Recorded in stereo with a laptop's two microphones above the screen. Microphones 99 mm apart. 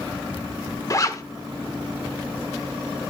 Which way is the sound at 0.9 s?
35° left (ahead or behind).